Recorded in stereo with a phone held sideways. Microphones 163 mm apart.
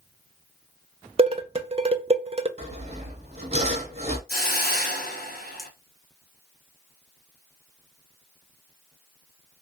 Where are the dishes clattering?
40° right (ahead or behind), 0.5 m.